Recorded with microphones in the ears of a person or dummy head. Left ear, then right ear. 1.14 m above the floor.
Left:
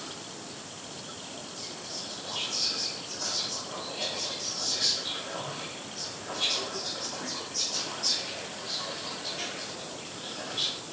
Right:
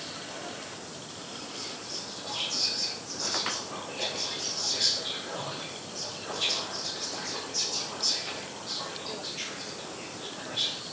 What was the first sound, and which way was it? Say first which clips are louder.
Whispering: right 1 dB; 40° right (ahead or behind).